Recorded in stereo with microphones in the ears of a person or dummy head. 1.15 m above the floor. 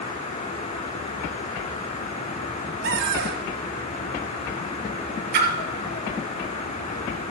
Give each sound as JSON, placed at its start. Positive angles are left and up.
{"t": 2.8, "sound": "a cupboard door", "side_deg": -60, "distance_m": 0.9}
{"t": 5.3, "sound": "a splash", "side_deg": -55, "distance_m": 1.7}